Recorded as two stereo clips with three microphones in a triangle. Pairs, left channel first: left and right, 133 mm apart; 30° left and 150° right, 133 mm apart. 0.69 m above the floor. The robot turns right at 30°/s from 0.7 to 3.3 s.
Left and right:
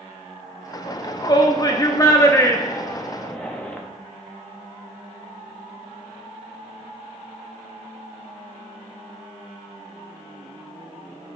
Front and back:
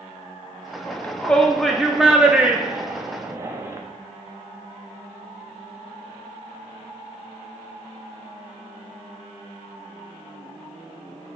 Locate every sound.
0.9 s a shout: 90° left, 0.5 m; by 3.8 s 165° left, 0.5 m